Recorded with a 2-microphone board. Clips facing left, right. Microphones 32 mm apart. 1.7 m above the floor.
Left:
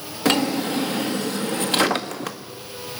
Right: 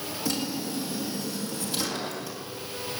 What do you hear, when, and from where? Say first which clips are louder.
0.2 s a drawer: left 11 dB; 60° left (ahead or behind), 1.8 m